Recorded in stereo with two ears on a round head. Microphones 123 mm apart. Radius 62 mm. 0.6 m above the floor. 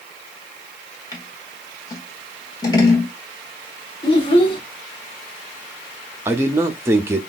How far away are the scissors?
About 1.2 m.